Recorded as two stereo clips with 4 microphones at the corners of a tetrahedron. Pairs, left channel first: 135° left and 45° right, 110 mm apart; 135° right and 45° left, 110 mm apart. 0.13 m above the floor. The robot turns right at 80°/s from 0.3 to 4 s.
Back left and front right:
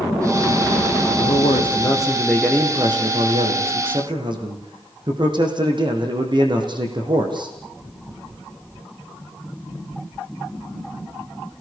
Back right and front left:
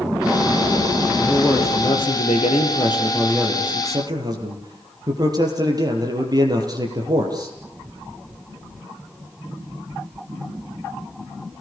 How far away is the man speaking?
About 6 m.